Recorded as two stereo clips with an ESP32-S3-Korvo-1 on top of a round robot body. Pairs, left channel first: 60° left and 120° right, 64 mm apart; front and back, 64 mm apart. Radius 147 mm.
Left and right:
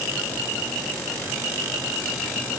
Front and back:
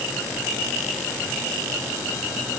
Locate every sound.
Only background noise.